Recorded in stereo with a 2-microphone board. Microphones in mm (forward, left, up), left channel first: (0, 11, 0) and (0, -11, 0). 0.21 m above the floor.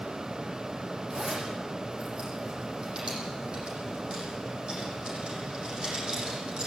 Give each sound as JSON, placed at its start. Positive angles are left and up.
{"t": 1.1, "sound": "a zipper", "side_deg": -35, "distance_m": 10.0}